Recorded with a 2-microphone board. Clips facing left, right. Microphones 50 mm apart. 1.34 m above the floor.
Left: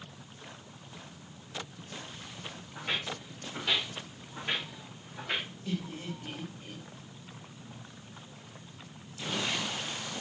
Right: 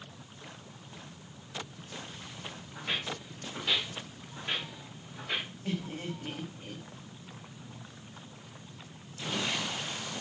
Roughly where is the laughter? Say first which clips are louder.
Right 2 dB; right.